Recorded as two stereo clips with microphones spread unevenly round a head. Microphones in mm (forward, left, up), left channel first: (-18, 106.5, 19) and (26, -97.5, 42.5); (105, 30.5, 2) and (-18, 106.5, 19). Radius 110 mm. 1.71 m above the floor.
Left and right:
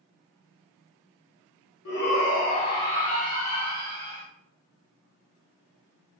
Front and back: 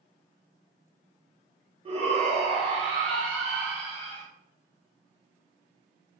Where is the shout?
130° left, 0.9 m; by 4.2 s 130° right, 1.2 m.